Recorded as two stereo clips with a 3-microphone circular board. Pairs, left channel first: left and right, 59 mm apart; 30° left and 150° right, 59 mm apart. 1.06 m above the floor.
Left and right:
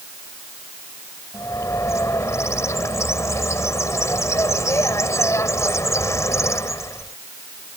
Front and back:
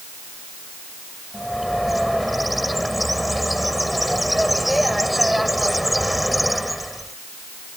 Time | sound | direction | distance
1.3 | a bird | 120° left | ?